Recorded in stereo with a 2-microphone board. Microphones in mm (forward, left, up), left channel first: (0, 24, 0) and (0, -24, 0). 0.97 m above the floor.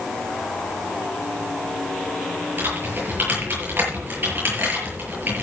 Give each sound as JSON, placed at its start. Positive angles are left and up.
{"t": 2.6, "sound": "typing on a keyboard", "side_deg": -45, "distance_m": 7.5}